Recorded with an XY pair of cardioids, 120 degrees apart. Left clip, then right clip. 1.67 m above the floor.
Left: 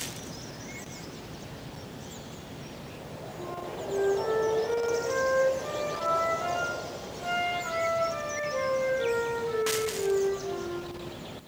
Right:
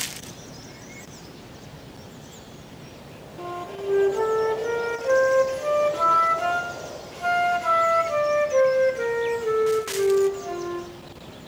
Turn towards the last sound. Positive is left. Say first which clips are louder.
# right 5 dB
turn(degrees=-65)